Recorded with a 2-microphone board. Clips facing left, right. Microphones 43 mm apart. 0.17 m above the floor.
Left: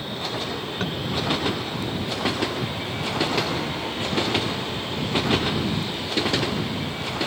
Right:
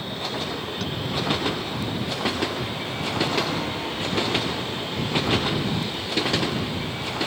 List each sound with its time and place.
0.8 s tapping: 40° left (ahead or behind)